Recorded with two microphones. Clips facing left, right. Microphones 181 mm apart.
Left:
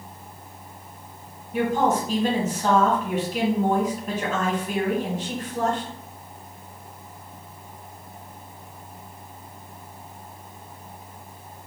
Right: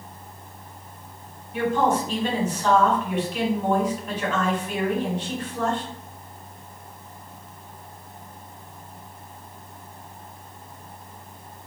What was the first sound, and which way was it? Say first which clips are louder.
A woman speaking: even; 40° left (ahead or behind).